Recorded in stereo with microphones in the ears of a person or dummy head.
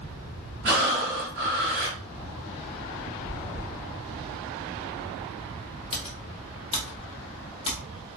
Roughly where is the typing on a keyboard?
Left.